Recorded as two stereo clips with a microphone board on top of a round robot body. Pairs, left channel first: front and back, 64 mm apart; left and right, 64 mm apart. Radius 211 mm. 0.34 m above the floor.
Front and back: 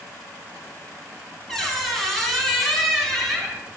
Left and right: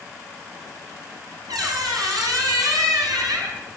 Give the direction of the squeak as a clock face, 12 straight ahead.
3 o'clock.